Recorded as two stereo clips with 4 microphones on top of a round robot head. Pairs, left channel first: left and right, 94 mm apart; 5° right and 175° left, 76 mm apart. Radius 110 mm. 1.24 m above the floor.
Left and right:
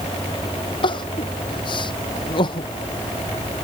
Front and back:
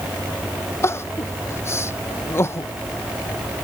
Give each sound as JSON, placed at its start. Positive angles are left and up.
{"t": 0.8, "sound": "crying", "azimuth_deg": 50}